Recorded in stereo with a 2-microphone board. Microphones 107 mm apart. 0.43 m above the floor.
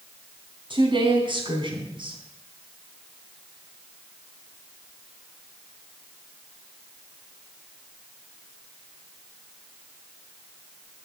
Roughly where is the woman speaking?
Right.